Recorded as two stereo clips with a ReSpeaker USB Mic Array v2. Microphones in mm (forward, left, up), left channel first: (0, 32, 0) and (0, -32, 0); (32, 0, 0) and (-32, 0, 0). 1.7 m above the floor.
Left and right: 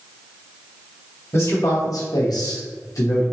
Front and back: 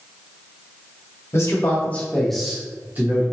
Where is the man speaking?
50° left, 1.4 m; by 3.2 s 130° left, 1.3 m.